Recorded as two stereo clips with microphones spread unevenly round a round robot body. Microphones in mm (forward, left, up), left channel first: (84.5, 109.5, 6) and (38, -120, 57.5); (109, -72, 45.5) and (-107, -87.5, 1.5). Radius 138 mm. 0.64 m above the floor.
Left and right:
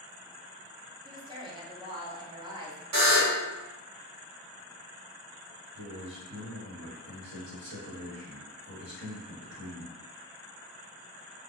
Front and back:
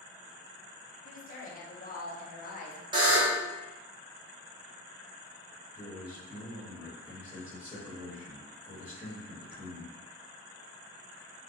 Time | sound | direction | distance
1.1 | a woman speaking | 25° right | 0.6 m
2.9 | a buzzer | 105° right | 0.9 m
5.7 | a man speaking | 115° right | 1.3 m